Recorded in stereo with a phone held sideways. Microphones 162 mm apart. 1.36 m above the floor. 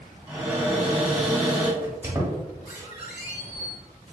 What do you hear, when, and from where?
0.3 s a cupboard door: 10° right (ahead or behind), 1.5 m
1.8 s a squeak: 15° right (ahead or behind), 1.2 m